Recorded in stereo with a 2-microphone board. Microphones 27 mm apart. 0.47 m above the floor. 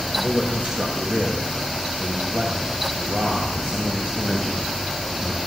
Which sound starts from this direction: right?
A man speaking, at 0.1 s.